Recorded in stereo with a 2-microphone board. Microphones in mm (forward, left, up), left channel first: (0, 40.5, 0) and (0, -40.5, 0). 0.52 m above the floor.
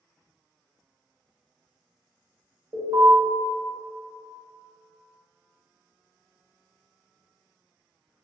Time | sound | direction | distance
2.7 | an alarm | 65° right (ahead or behind) | 1.6 m